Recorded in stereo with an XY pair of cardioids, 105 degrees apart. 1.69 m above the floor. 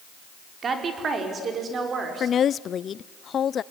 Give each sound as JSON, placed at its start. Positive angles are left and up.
{"t": 0.6, "sound": "a woman speaking", "azimuth_deg": -45, "distance_m": 5.0}
{"t": 2.2, "sound": "a woman speaking", "azimuth_deg": 55, "distance_m": 0.6}